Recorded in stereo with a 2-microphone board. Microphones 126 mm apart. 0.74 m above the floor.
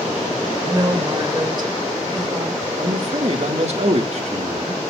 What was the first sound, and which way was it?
A woman speaking, 35° right (ahead or behind).